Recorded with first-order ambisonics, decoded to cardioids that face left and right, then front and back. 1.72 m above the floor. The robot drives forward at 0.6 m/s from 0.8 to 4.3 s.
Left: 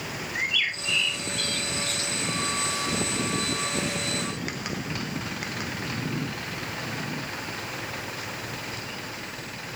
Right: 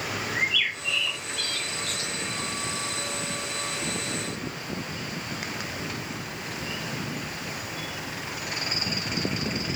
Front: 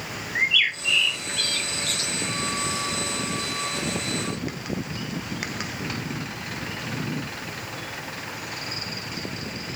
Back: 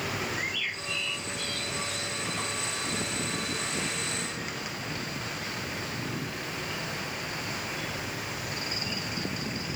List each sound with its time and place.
0.3 s a bird: straight ahead, 1.5 m; by 2.1 s 5° left, 0.8 m